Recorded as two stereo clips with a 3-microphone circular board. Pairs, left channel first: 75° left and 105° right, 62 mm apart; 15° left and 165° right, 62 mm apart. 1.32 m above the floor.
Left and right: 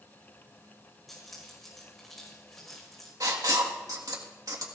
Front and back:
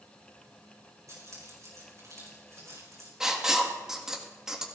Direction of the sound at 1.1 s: 160° left.